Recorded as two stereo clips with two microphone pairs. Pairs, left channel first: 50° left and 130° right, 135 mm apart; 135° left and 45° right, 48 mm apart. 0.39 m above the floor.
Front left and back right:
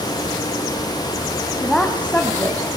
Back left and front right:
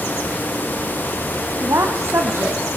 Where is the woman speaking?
40° right, 2.5 m; by 2.7 s 20° right, 2.5 m.